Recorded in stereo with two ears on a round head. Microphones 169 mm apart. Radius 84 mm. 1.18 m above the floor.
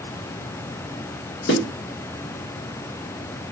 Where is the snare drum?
60° left (ahead or behind), 2.5 m.